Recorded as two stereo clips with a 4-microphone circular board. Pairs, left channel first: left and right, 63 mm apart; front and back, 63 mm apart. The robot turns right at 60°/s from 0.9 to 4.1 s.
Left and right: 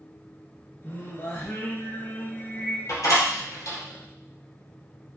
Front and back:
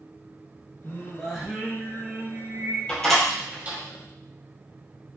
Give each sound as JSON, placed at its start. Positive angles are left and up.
{"t": 0.8, "sound": "singing", "azimuth_deg": 50, "distance_m": 1.7}
{"t": 2.9, "sound": "a door slam", "azimuth_deg": 75, "distance_m": 2.0}